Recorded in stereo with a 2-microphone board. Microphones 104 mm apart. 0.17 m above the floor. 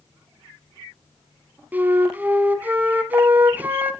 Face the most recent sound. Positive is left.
turn(degrees=-20)  # may be behind; listen again after turning